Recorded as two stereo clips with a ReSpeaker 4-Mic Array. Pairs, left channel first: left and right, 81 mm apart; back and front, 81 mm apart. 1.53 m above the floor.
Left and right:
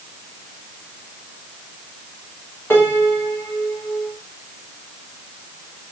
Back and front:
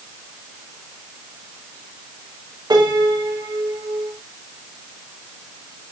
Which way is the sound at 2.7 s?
30° left.